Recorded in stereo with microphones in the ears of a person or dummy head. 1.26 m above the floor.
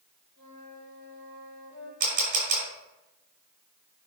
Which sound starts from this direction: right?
A camera shutter, at 2.0 s.